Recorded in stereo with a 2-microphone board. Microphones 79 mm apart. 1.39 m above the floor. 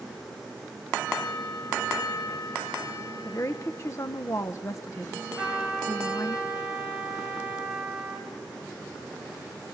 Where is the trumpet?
5° right (ahead or behind), 8.5 m.